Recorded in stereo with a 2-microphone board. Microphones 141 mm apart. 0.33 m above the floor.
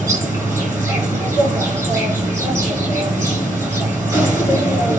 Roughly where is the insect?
Right.